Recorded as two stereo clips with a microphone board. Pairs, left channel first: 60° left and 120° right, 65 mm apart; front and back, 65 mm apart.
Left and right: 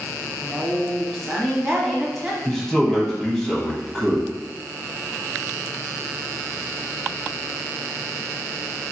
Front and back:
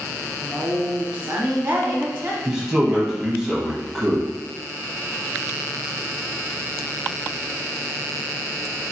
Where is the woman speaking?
150° left, 1.1 m.